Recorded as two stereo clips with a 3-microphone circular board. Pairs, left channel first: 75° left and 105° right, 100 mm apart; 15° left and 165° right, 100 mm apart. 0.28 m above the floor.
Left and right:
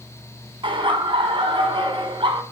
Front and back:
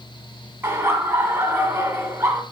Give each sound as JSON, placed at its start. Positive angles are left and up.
{"t": 0.6, "sound": "laughter", "azimuth_deg": -105, "distance_m": 3.0}